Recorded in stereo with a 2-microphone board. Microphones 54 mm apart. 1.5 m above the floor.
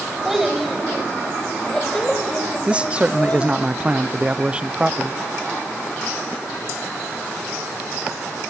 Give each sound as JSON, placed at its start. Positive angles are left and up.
{"t": 0.2, "sound": "a child speaking", "side_deg": -5, "distance_m": 4.5}
{"t": 2.7, "sound": "a man speaking", "side_deg": -20, "distance_m": 0.7}